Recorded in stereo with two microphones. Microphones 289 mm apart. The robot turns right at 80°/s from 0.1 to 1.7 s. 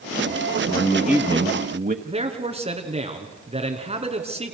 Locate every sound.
0.7 s a man speaking: 155° left, 1.1 m; by 1.9 s 120° right, 1.1 m
2.0 s a man speaking: 20° right (ahead or behind), 3 m